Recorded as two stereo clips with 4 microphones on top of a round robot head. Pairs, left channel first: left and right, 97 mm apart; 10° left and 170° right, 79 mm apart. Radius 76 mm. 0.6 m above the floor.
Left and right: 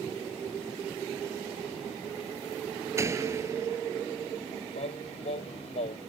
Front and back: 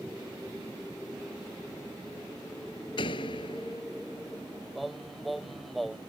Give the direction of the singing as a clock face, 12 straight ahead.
9 o'clock.